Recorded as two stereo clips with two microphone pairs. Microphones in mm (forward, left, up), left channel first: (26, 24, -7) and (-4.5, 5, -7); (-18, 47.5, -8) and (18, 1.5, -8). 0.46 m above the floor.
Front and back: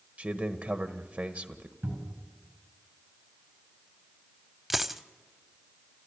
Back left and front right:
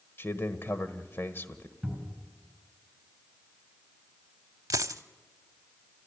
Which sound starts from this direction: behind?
A man speaking, at 0.2 s.